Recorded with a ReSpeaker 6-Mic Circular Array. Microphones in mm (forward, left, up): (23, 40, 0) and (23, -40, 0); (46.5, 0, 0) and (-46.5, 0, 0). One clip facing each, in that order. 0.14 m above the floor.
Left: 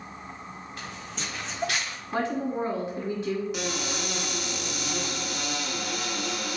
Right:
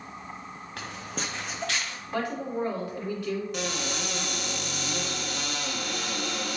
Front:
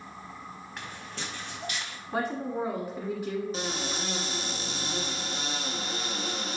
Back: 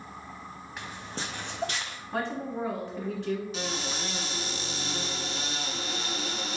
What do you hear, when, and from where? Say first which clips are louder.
0.8 s footsteps: right 4 dB, back 3 dB; 95° right, 1.0 m; by 2.0 s 155° left, 1.0 m
2.1 s a woman speaking: left 2 dB, front 2 dB; 65° left, 1.6 m
3.5 s a cupboard door: left 1 dB, front 1 dB; 10° left, 0.9 m